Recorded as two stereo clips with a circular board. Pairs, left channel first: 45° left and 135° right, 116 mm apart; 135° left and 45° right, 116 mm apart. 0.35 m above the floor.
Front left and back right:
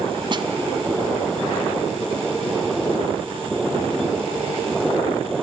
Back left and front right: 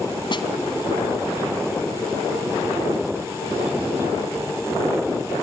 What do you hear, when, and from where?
0.3 s a snare drum: straight behind, 1.7 m